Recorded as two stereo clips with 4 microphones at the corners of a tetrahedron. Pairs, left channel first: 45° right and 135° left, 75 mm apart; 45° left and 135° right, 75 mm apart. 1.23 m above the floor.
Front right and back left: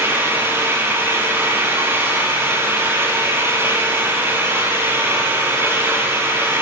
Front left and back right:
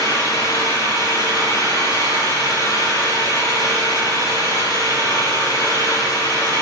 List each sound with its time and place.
0.0 s an engine running: 80° left, 9.5 m